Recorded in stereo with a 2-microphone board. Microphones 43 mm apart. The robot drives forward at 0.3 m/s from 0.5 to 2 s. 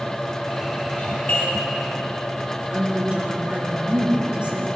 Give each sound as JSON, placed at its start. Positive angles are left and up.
{"t": 1.0, "sound": "a doorbell", "side_deg": 30, "distance_m": 5.0}
{"t": 2.7, "sound": "a woman speaking", "side_deg": -30, "distance_m": 3.0}